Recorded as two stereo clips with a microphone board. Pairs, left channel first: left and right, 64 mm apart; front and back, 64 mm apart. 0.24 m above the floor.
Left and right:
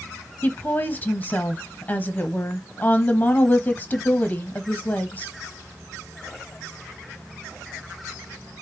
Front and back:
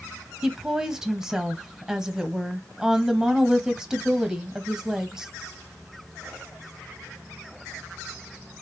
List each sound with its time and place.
0.4 s a woman speaking: 110° left, 1.0 m